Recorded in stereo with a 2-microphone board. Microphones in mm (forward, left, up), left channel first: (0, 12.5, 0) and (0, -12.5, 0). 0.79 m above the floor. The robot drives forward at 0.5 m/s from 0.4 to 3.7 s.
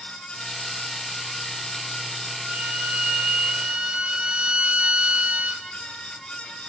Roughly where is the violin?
Right.